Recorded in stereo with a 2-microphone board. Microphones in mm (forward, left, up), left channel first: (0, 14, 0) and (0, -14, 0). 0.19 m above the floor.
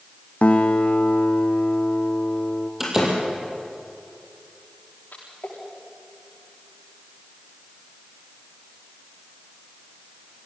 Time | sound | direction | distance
0.4 | a guitar | 45° left (ahead or behind) | 2 m
2.8 | a door slam | 15° right (ahead or behind) | 5 m
5.1 | a splash | 75° left (ahead or behind) | 8.5 m